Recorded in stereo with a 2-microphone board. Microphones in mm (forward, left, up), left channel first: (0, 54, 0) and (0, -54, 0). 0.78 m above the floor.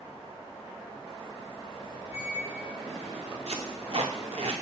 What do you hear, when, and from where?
2.1 s a squeak: 70° right (ahead or behind), 1.6 m
3.5 s tape being pulled: 65° right (ahead or behind), 0.5 m